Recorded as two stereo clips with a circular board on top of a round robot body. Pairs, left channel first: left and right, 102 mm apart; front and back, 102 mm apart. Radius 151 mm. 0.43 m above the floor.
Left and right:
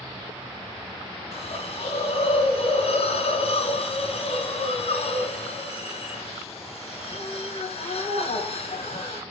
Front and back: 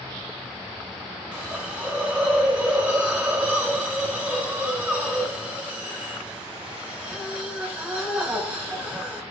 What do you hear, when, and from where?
1.3 s a hiss: 100° left, 3.5 m